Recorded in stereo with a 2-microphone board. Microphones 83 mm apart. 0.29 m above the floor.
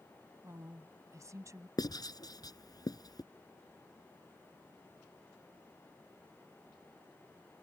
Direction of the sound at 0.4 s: 40° right (ahead or behind).